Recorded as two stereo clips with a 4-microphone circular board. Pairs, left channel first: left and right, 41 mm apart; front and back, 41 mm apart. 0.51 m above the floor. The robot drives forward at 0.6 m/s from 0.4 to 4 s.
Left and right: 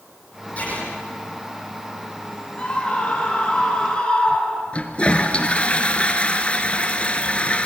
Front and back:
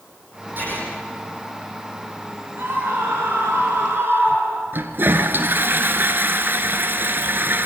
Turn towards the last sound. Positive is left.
turn(degrees=150)